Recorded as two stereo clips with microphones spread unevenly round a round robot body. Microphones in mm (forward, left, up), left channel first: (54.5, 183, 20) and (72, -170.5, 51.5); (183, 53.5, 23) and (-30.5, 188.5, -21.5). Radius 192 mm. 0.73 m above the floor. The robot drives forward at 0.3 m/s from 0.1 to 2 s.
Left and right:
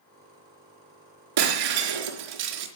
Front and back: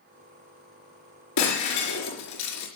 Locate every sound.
1.4 s breaking glass: 70° right, 4.5 m